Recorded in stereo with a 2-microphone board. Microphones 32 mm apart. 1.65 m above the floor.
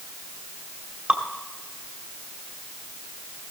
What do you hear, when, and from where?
1.1 s dripping: 35° right (ahead or behind), 2.5 m